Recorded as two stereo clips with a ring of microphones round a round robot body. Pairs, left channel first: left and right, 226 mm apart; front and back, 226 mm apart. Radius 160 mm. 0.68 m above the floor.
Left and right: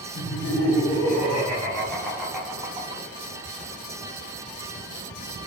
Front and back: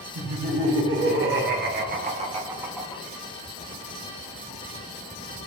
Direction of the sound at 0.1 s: 150° left.